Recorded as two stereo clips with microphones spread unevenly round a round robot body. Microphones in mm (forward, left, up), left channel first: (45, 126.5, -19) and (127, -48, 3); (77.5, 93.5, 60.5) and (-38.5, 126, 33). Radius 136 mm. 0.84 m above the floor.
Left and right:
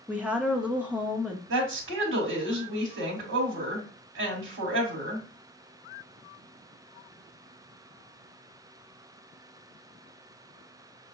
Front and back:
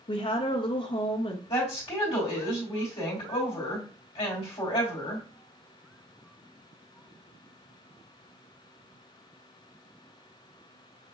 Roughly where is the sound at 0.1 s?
Ahead left.